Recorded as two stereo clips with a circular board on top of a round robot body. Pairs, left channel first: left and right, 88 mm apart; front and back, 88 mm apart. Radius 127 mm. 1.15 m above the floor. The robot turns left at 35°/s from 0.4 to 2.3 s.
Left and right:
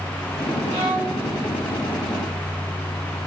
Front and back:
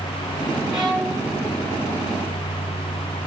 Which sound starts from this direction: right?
A violin, at 0.7 s.